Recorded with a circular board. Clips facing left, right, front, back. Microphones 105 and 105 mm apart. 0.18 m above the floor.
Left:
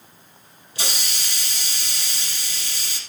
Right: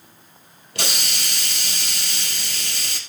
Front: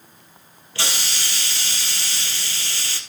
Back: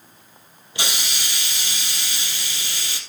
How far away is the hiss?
About 2.5 m.